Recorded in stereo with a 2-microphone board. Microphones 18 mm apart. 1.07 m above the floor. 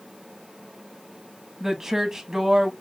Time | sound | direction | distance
1.6 | a woman speaking | 25° right (ahead or behind) | 1.1 m